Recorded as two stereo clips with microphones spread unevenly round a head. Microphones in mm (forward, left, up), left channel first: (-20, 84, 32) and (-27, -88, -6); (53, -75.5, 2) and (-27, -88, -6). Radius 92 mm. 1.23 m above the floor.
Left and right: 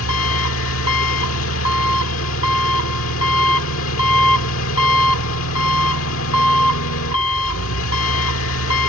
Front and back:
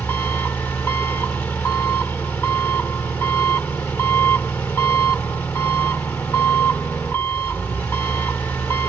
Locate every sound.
0.0 s an engine running: 85° left